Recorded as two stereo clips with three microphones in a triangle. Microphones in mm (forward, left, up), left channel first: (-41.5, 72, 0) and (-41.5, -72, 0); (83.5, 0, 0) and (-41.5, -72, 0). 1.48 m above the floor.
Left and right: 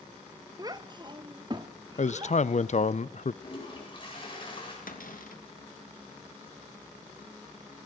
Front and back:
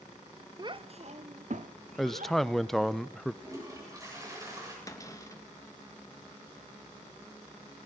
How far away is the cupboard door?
About 2.5 m.